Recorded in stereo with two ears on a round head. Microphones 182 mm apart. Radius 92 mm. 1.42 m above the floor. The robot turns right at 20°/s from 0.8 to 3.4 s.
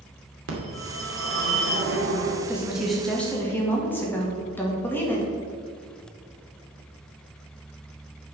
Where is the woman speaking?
10° right (ahead or behind), 2.5 m; by 5.3 s 10° left (ahead or behind), 2.5 m.